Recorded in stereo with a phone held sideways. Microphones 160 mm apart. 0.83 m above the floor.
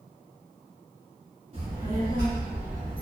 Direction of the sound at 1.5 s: 50° right (ahead or behind).